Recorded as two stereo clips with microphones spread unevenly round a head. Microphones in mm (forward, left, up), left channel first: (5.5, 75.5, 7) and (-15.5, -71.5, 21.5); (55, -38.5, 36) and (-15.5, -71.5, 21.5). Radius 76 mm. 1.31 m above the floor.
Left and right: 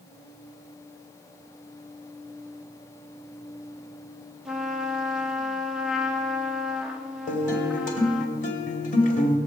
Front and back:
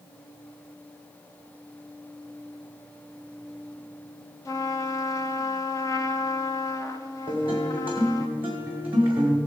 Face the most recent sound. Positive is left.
turn(degrees=125)